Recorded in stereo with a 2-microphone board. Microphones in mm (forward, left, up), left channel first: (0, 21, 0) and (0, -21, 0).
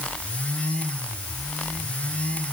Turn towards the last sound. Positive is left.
No sound to turn to.